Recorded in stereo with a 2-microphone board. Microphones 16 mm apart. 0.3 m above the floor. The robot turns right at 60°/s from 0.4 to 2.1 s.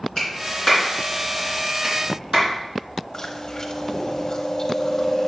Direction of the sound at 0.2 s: 50° left (ahead or behind).